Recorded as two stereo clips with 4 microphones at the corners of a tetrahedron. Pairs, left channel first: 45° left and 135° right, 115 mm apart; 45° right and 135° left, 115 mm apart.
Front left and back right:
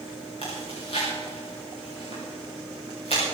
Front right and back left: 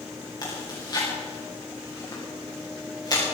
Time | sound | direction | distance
0.4 | chewing | 15° left | 8 m